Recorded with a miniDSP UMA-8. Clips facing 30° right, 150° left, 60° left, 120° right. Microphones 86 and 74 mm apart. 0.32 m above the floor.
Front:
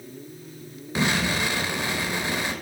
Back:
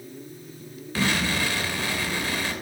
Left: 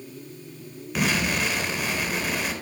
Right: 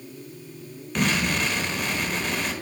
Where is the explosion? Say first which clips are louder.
Front 1 dB, even; 20° right, 0.9 m.